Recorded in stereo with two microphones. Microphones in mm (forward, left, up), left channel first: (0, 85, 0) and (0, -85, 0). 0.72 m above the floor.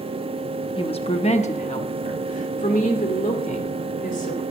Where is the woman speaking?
35° left (ahead or behind), 0.9 m; by 4.4 s 55° left (ahead or behind), 3 m.